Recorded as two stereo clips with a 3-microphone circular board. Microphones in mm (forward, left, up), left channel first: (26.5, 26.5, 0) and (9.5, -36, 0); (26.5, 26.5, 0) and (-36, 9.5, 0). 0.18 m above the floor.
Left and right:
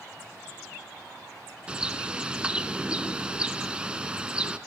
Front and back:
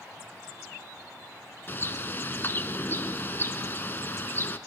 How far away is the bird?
About 0.5 m.